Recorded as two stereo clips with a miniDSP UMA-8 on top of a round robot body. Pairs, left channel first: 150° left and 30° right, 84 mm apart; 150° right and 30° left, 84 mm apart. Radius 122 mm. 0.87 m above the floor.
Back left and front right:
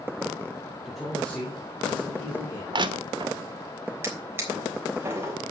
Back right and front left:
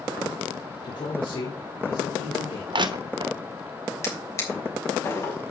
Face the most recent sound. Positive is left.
turn(degrees=-95)